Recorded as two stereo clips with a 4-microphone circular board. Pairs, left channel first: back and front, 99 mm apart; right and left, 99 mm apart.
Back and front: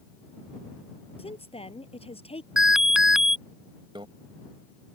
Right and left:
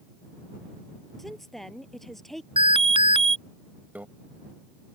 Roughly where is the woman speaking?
Behind.